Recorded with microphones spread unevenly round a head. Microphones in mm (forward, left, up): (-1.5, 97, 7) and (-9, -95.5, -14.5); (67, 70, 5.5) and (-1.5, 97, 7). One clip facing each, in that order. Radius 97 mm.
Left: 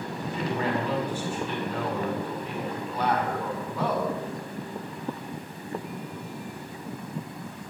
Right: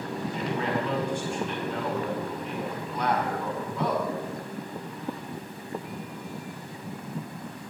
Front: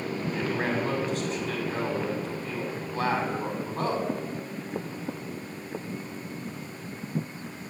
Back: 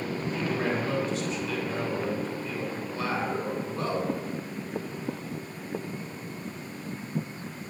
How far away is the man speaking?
About 5.5 m.